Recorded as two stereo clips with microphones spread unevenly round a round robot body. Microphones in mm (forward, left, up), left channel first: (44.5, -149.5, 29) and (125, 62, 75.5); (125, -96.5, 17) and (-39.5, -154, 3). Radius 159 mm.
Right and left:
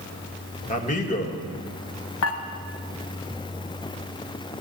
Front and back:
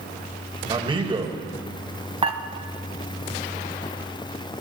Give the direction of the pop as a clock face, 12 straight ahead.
I don't hear a pop.